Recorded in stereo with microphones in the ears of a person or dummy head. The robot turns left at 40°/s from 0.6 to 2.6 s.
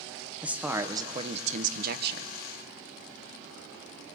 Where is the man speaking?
10° right, 0.6 m; by 2.3 s 75° right, 0.6 m.